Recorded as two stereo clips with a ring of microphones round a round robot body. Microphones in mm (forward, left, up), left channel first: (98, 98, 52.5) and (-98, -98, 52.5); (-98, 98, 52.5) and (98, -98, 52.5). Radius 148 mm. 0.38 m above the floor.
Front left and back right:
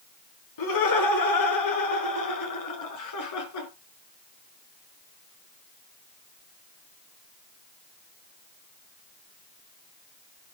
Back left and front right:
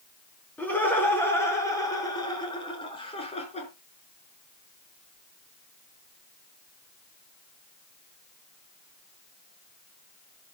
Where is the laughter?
50° left, 7 m; by 3.7 s 65° left, 6 m.